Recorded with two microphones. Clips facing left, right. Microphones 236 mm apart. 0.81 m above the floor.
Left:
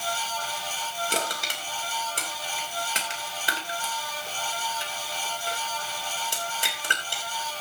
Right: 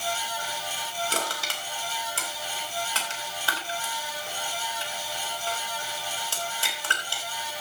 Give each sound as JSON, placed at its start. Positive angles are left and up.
{"t": 1.1, "sound": "crushing", "side_deg": 20, "distance_m": 2.5}